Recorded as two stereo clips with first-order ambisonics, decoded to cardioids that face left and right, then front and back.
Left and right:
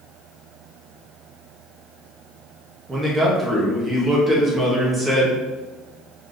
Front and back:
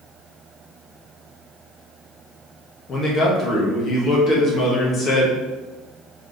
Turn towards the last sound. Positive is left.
turn(degrees=-30)